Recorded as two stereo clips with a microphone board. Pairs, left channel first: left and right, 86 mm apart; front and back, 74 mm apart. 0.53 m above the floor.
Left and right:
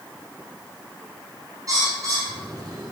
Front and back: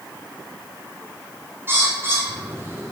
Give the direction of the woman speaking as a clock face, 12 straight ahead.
I don't hear a woman speaking.